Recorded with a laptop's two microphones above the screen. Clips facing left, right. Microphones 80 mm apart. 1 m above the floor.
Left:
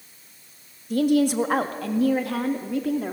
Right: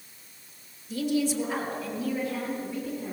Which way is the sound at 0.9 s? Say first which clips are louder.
Left 7 dB; 50° left (ahead or behind).